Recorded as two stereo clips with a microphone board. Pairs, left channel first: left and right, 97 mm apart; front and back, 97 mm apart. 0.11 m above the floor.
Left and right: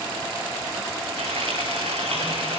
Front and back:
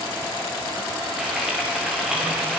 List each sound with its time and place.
1.2 s frying: 95° right, 8 m